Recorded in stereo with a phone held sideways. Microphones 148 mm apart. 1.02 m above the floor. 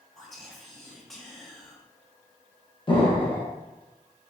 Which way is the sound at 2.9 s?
35° left (ahead or behind).